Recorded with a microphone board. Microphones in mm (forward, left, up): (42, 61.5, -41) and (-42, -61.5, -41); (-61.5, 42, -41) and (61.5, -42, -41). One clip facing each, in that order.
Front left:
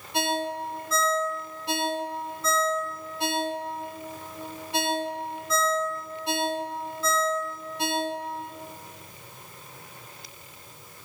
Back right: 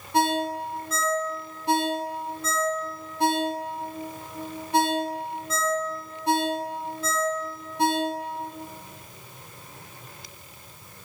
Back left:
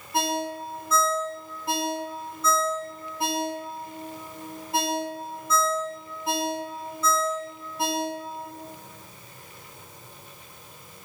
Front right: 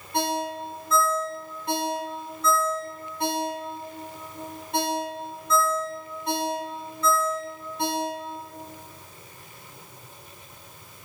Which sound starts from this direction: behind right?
A ringtone, at 0.1 s.